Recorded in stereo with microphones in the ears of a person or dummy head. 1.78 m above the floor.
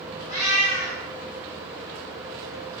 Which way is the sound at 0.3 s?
15° right (ahead or behind).